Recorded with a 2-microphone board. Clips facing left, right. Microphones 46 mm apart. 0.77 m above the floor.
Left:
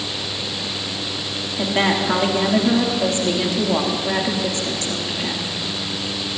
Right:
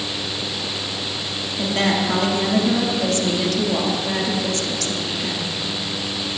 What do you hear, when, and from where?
1.6 s a woman speaking: 25° left (ahead or behind), 1.8 m